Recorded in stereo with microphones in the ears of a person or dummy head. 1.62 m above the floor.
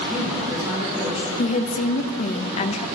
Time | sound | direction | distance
0.1 | a woman speaking | 15° right (ahead or behind) | 3 m
1.4 | a woman speaking | 35° left (ahead or behind) | 0.5 m